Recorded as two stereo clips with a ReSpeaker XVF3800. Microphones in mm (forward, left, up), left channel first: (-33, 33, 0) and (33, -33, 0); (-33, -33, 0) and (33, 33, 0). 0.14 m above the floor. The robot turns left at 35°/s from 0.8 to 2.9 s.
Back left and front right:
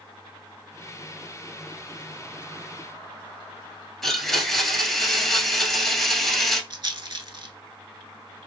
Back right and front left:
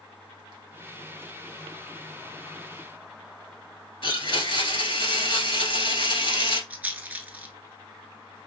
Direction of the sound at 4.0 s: 140° right.